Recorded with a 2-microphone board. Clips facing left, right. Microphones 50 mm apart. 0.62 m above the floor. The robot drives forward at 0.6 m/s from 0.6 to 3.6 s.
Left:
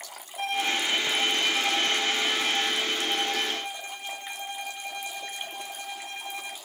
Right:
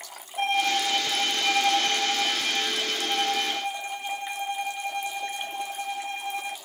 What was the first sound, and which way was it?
A violin, 60° right (ahead or behind).